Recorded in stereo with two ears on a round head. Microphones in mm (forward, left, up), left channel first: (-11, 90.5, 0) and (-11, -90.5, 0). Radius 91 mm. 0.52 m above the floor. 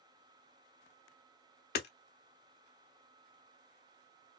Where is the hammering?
50° left (ahead or behind), 0.8 m.